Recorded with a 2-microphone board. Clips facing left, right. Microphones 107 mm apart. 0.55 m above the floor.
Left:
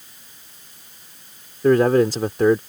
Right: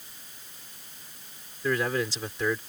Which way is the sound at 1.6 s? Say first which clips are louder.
Left 13 dB; 50° left (ahead or behind).